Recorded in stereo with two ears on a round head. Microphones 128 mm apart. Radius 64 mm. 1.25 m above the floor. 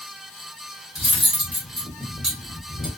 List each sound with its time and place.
0.9 s cutlery clinking: 5° right (ahead or behind), 1.1 m